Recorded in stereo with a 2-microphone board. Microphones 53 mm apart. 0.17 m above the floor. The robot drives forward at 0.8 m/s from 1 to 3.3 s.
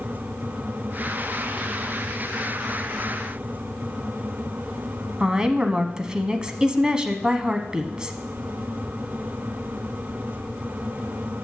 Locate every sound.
5.2 s a woman speaking: 15° right (ahead or behind), 1.0 m